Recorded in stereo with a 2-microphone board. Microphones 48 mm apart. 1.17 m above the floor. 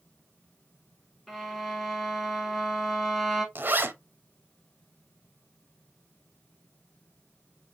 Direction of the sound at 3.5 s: 45° right (ahead or behind).